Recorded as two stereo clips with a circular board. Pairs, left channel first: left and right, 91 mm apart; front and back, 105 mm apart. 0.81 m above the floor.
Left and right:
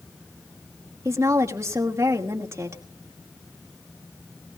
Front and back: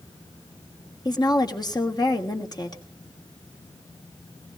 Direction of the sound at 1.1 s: 40° right.